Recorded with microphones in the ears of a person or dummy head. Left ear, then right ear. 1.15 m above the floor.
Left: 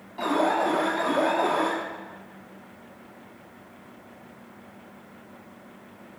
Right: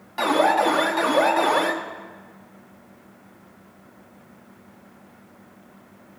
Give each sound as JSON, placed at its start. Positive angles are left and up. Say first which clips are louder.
{"t": 0.2, "sound": "an alarm", "louder": "right 5 dB", "side_deg": -55, "distance_m": 1.8}